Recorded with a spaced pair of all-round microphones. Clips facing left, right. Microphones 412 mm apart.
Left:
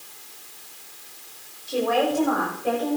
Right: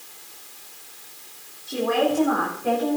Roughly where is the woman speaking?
Right.